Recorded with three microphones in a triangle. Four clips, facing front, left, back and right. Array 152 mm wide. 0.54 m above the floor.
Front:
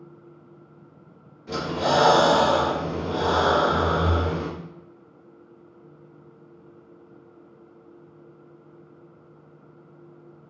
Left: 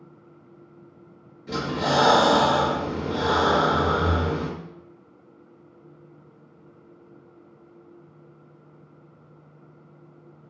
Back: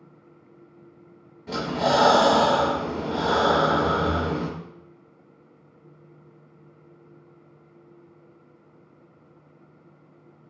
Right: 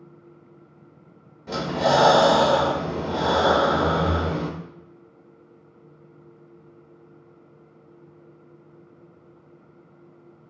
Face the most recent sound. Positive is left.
turn(degrees=-115)